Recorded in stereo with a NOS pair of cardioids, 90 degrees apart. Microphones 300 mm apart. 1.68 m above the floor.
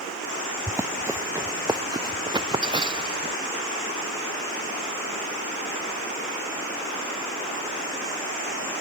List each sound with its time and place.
0.7 s running footsteps: 10° right; by 3.4 s 15° right